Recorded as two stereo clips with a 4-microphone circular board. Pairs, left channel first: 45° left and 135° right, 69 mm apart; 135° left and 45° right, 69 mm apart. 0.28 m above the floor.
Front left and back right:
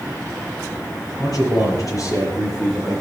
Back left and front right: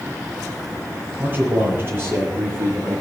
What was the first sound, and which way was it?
A man speaking, 15° left.